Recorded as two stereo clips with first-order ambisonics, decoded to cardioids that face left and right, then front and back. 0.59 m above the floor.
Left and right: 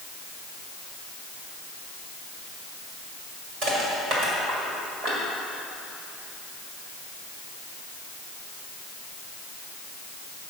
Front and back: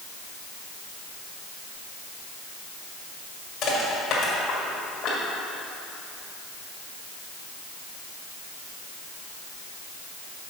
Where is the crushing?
45° right, 2 m.